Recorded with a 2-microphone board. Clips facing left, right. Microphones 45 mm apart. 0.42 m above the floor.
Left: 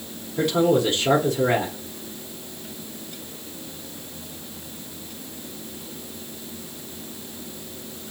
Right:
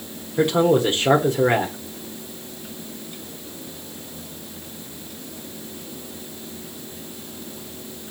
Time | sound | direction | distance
0.4 | a man speaking | 25° right (ahead or behind) | 0.9 m